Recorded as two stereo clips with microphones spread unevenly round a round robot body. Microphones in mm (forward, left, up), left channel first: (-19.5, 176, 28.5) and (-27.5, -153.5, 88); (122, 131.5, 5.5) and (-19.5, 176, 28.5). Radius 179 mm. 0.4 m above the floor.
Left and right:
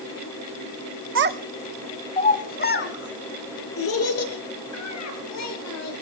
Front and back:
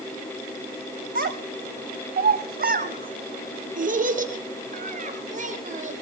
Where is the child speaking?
145° right, 1.4 m; by 5.9 s 130° left, 7.5 m.